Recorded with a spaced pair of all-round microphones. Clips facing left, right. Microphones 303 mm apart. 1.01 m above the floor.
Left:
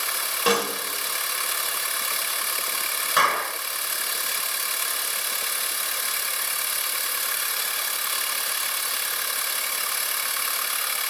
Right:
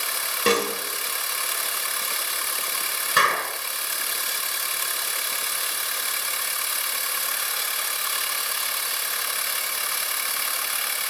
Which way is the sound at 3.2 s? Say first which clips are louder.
Even; 30° right (ahead or behind).